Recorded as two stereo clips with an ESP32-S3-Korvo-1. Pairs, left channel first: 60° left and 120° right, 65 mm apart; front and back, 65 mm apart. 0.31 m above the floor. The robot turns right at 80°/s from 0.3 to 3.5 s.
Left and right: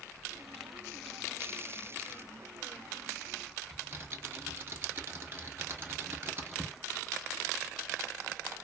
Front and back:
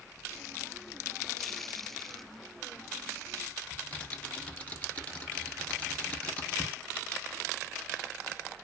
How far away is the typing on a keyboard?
About 0.9 m.